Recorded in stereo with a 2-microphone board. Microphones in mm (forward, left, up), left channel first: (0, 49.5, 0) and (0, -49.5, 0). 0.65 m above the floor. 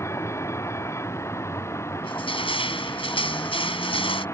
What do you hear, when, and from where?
0.0 s a vehicle: 25° left (ahead or behind)
2.0 s crushing: 65° left (ahead or behind)